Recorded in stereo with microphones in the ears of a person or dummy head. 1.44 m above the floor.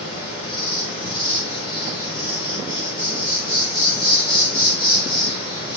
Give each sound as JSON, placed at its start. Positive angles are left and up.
{"t": 0.0, "sound": "an insect", "side_deg": 30, "distance_m": 1.8}